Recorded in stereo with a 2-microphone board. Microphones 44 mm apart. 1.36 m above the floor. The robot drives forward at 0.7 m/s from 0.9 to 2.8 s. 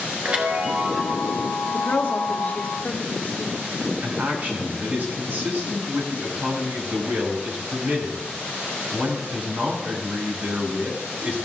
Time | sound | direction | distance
0.2 | a chime | 35° right (ahead or behind) | 4 m
1.7 | a woman speaking | 60° left (ahead or behind) | 1.3 m
4.0 | a man speaking | 40° right (ahead or behind) | 5.5 m